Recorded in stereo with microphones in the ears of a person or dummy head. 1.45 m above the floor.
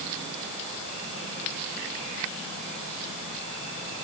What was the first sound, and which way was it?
Only background noise.